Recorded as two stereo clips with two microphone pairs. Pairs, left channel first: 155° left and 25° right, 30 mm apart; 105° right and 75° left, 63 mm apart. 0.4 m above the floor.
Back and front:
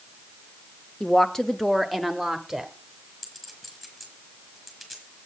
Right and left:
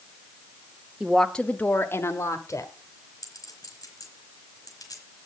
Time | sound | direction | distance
1.0 | a woman speaking | 150° left | 0.8 m
3.2 | a clink | 130° right | 3.5 m